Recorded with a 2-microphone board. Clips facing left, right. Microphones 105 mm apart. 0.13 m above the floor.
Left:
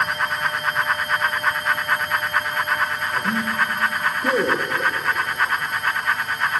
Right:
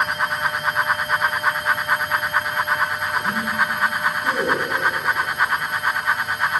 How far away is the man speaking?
About 6 m.